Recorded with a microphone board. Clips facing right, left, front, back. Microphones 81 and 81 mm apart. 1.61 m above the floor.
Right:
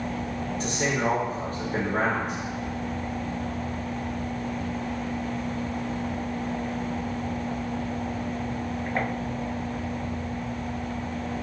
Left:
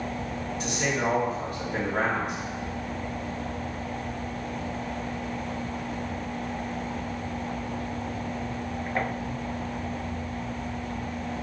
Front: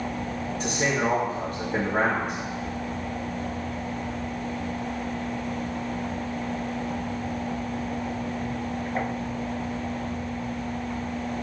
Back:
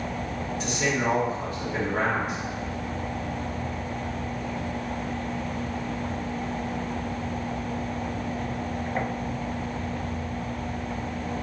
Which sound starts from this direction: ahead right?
A man speaking, at 0.6 s.